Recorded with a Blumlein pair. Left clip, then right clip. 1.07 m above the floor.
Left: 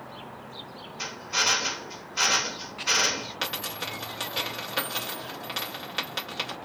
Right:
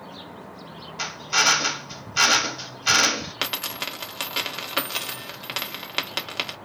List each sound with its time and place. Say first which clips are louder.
1.0 s a drill: right 5 dB; 50° right, 1.3 m
3.4 s a dropped coin: right 4 dB; 25° right, 1.2 m